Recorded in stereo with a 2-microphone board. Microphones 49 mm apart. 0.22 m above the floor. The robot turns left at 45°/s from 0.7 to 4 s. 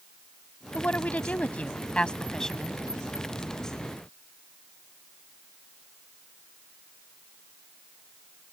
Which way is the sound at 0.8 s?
30° left (ahead or behind).